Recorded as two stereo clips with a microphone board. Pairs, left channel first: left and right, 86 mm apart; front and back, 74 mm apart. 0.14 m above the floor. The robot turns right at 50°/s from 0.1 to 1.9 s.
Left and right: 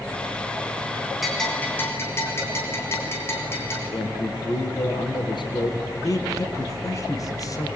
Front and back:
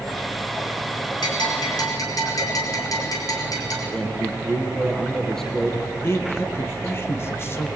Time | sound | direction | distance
1.2 | a bell | 5° right | 5 m
3.9 | a man speaking | 80° left | 3.5 m
6.0 | a man speaking | 50° left | 3 m